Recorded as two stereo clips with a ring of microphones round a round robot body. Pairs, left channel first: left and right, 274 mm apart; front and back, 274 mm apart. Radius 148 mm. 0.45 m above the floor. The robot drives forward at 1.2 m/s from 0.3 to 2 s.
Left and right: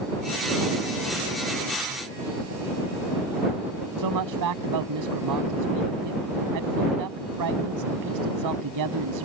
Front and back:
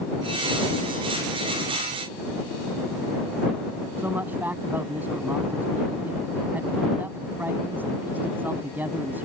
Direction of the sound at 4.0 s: 95° right.